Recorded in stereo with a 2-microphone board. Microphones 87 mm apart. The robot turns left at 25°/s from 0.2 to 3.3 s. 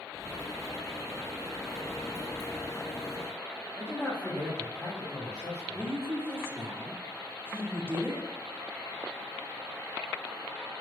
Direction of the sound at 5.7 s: 25° right (ahead or behind).